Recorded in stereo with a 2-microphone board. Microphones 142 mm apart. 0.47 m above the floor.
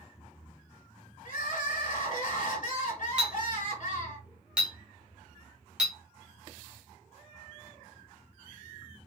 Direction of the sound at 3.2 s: 5° right (ahead or behind).